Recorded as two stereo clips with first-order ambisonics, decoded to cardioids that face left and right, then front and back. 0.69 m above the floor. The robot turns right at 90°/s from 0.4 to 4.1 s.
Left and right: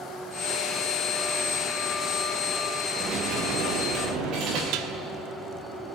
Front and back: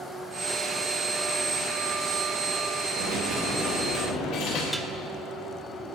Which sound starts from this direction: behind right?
A dropped coin, at 3.0 s.